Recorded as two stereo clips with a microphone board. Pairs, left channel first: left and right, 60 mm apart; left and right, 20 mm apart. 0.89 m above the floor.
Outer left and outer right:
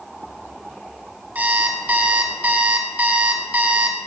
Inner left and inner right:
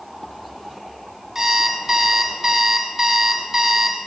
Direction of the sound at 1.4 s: 30° right (ahead or behind).